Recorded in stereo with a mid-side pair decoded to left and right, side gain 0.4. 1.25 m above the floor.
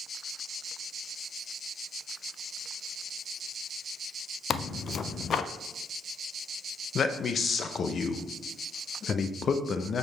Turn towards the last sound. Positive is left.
turn(degrees=55)